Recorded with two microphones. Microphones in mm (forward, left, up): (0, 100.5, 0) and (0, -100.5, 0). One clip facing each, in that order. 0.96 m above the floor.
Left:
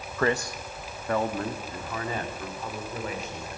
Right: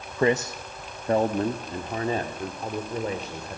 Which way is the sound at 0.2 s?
15° right (ahead or behind).